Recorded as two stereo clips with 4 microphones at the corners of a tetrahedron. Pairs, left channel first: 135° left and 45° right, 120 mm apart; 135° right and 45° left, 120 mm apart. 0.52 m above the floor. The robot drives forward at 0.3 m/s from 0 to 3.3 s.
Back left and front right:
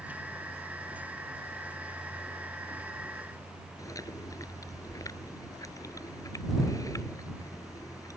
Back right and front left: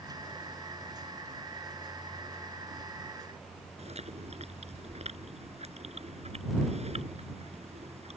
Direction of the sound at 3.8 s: 75° left.